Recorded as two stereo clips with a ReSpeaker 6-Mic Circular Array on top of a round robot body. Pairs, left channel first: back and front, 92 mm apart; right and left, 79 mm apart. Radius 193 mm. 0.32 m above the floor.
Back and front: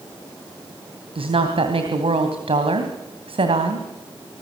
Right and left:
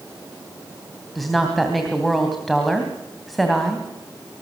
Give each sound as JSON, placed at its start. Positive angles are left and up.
{"t": 1.1, "sound": "a woman speaking", "azimuth_deg": 0, "distance_m": 3.0}